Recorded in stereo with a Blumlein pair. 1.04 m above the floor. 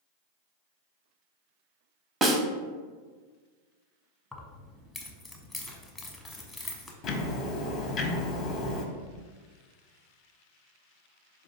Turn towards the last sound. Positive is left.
turn(degrees=30)